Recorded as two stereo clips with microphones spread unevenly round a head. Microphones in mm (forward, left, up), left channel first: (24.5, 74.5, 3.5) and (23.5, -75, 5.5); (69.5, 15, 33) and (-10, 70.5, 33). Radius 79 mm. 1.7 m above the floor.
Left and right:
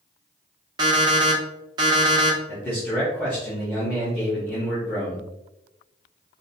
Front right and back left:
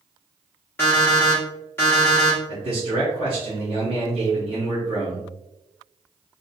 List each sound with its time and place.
0.8 s an alarm clock: 85° right, 0.8 m
2.5 s a man speaking: 165° left, 0.6 m